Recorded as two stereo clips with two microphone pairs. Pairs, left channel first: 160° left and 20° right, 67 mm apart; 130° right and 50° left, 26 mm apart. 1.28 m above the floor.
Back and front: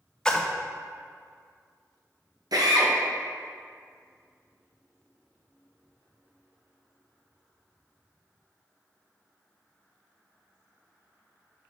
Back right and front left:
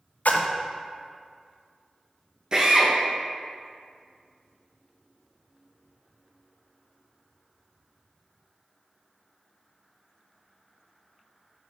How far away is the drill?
About 0.9 m.